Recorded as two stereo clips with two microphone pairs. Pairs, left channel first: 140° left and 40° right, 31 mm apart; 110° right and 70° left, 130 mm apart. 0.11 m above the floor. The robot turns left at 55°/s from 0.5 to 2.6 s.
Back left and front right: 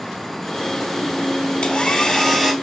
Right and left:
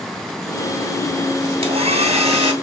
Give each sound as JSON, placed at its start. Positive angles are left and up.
{"t": 1.6, "sound": "a hair dryer", "azimuth_deg": 80, "distance_m": 2.0}